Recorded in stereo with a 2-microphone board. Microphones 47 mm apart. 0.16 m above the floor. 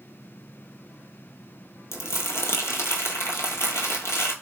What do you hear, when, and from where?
1.9 s crumpling: 70° left (ahead or behind), 0.6 m